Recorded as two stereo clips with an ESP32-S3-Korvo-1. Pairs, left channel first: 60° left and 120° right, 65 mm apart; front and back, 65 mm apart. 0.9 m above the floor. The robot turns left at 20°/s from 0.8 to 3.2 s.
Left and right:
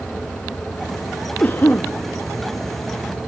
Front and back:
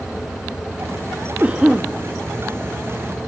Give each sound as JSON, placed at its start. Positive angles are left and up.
{"t": 1.4, "sound": "a cough", "azimuth_deg": 120, "distance_m": 1.2}